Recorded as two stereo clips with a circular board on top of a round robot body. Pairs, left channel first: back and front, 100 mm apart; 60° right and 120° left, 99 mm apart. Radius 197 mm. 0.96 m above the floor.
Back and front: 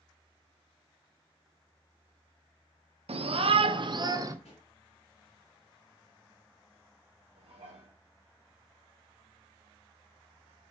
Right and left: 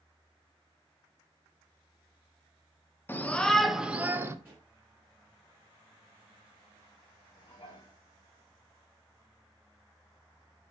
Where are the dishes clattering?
20° right, 5 m.